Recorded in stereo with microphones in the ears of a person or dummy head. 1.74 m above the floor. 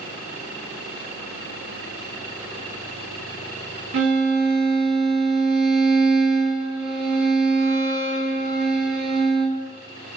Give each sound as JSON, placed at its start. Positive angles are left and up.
{"t": 3.9, "sound": "a violin", "side_deg": -60, "distance_m": 1.1}